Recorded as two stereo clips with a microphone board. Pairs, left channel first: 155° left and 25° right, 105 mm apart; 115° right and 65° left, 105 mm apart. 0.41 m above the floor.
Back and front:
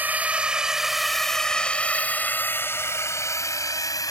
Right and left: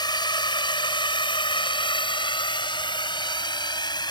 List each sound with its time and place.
0.0 s a drone: 90° right; by 4.1 s 150° right